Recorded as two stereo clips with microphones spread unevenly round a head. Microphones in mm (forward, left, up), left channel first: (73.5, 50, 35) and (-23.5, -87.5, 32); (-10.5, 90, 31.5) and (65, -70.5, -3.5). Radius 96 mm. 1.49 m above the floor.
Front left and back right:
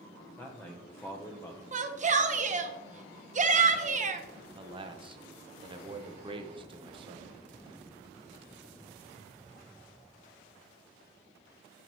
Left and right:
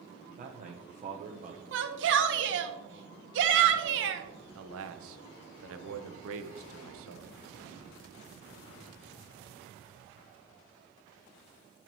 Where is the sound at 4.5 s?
65° right, 0.9 m.